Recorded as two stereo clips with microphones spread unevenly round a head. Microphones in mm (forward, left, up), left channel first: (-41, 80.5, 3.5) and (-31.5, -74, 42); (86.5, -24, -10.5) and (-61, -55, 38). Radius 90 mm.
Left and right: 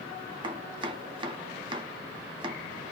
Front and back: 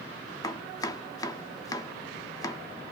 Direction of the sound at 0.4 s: 65° right.